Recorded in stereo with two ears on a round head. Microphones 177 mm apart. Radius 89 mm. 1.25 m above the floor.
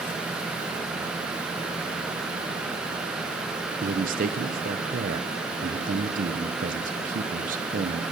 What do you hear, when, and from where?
3.8 s a man speaking: 45° right (ahead or behind), 0.9 m